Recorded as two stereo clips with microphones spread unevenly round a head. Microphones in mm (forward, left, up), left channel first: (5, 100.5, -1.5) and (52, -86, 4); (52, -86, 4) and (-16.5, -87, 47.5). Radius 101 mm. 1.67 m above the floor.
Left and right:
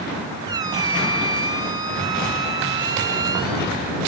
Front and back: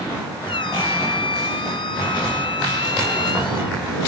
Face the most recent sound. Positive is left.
turn(degrees=-15)